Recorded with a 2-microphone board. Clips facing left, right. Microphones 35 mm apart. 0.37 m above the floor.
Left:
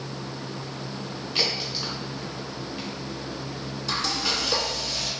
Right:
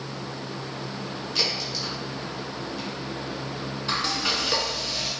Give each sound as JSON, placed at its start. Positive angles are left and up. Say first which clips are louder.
{"t": 1.4, "sound": "a crack", "louder": "left 1 dB", "side_deg": 25, "distance_m": 1.3}
{"t": 3.9, "sound": "frying", "louder": "right 1 dB", "side_deg": -30, "distance_m": 0.6}